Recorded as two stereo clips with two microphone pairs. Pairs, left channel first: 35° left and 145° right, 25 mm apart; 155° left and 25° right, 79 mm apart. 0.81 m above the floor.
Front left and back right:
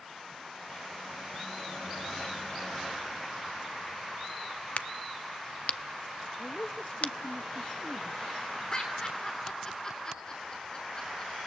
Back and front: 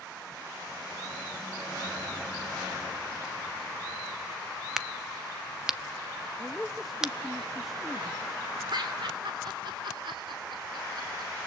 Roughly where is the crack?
Ahead left.